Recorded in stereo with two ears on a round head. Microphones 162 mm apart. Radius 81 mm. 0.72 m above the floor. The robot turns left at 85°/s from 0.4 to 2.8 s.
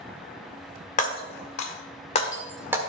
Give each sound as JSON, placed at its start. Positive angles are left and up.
{"t": 1.0, "sound": "breaking glass", "side_deg": 45, "distance_m": 1.3}